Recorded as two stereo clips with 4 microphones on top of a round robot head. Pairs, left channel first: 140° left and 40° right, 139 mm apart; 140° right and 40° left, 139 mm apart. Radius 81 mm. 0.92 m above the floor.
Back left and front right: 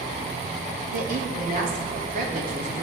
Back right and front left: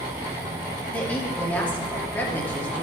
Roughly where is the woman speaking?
Ahead right.